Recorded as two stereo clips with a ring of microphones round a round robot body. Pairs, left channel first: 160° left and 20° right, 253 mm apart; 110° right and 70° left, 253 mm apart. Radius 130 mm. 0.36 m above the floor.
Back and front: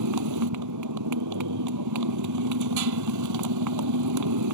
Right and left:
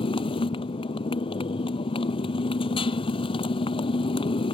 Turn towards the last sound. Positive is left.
turn(degrees=-40)